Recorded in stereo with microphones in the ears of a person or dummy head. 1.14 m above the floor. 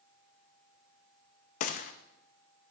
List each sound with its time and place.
1.6 s a gunshot: 60° left (ahead or behind), 0.6 m